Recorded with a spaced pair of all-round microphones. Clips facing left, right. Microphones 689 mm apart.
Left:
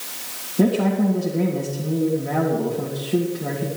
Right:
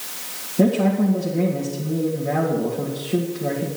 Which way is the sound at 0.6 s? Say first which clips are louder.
Right 1 dB; centre (ahead or behind).